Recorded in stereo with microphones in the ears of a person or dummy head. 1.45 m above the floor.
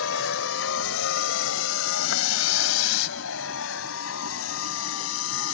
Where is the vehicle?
85° left.